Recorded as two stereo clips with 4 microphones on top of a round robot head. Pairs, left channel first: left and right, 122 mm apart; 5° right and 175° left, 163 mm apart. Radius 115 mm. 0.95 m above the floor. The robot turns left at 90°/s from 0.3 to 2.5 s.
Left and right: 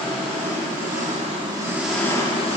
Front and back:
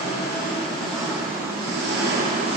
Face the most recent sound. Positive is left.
turn(degrees=125)